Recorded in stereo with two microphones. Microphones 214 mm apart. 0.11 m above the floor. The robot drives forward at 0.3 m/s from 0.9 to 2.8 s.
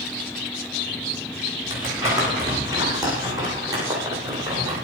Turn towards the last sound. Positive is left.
turn(degrees=-15)  # may be behind; listen again after turning